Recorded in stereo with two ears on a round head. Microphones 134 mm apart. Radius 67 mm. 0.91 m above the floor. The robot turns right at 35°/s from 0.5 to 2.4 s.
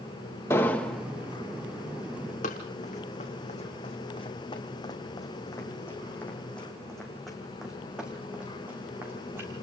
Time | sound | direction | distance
0.5 | an explosion | 15° left (ahead or behind) | 1.1 m
2.4 | running footsteps | 50° left (ahead or behind) | 3.5 m